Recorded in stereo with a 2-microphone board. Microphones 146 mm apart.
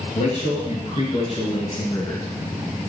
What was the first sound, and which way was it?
A man speaking, 50° left (ahead or behind).